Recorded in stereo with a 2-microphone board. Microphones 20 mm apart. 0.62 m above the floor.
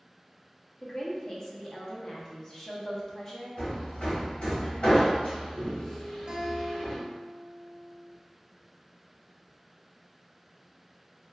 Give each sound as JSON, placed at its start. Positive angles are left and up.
{"t": 0.8, "sound": "a woman speaking", "side_deg": 25, "distance_m": 0.8}
{"t": 3.6, "sound": "hammering", "side_deg": 85, "distance_m": 1.8}
{"t": 6.3, "sound": "a guitar", "side_deg": -35, "distance_m": 0.7}